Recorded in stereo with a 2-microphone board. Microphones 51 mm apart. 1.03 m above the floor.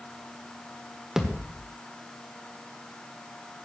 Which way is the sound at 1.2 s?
15° right (ahead or behind).